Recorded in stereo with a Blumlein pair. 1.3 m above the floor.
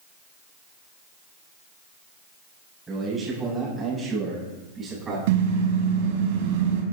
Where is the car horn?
50° right, 3.5 m.